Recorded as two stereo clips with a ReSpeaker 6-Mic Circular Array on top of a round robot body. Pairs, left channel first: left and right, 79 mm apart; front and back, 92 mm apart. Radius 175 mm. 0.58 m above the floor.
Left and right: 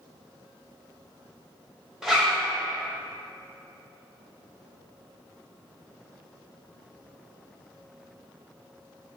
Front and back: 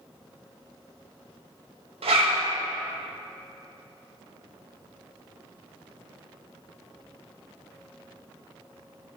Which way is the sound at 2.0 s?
175° right.